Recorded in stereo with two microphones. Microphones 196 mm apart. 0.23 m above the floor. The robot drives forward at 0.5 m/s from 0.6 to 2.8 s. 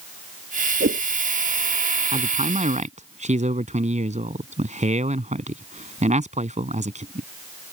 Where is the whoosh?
85° right; by 1.0 s 80° right.